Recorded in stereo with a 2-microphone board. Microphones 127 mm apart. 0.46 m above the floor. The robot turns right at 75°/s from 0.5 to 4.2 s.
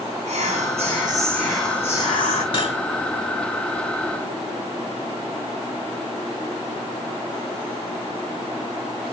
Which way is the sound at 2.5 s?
50° left (ahead or behind).